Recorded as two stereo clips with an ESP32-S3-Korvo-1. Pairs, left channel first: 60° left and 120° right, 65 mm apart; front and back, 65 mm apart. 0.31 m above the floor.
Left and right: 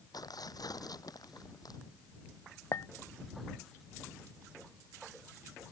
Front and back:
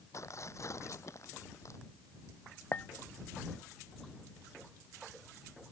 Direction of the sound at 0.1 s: 40° left.